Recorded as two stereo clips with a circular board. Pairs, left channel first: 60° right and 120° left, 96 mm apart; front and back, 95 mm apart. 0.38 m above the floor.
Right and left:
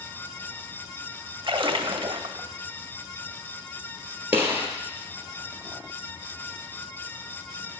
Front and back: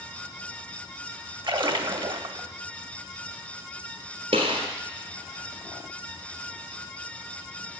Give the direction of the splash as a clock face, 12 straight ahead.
7 o'clock.